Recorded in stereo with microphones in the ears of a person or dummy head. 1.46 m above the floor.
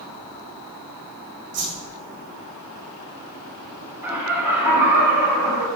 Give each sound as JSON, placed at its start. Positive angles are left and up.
{"t": 1.5, "sound": "a whoosh", "side_deg": -45, "distance_m": 4.5}
{"t": 4.0, "sound": "laughter", "side_deg": 0, "distance_m": 3.5}